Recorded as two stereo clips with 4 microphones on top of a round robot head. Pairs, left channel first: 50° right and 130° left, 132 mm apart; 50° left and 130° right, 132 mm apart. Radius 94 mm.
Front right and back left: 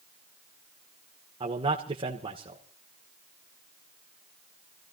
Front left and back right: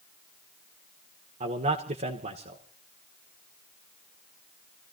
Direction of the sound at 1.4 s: 170° right.